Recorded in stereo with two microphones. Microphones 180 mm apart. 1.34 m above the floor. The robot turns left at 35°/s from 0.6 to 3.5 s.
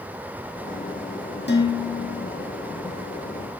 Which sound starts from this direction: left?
Dishes clattering, at 1.5 s.